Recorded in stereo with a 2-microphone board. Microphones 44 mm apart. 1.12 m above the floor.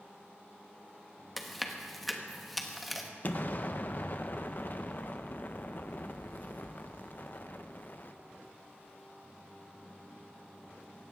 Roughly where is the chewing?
Centre.